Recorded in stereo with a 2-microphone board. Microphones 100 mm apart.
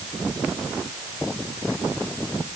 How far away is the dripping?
I don't hear dripping.